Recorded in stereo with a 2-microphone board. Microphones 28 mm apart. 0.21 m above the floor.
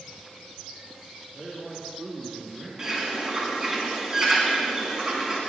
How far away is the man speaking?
About 4.5 m.